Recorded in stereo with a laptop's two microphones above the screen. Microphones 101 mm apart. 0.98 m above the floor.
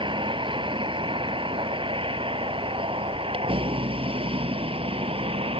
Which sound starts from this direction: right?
A vehicle, at 0.0 s.